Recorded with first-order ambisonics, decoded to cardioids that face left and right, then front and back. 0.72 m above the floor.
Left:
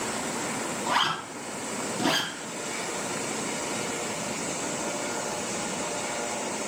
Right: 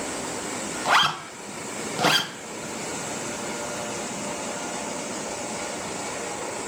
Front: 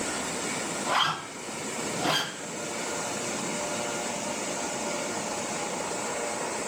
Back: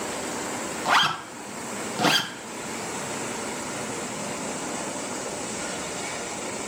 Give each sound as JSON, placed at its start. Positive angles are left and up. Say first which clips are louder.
{"t": 0.8, "sound": "a zipper", "louder": "right 6 dB, back 5 dB", "azimuth_deg": -125, "distance_m": 1.1}